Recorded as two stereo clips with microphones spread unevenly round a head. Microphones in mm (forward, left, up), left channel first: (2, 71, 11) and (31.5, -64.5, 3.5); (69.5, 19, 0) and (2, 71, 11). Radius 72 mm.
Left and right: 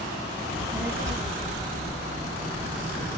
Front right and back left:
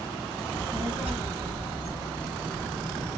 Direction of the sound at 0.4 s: 140° right.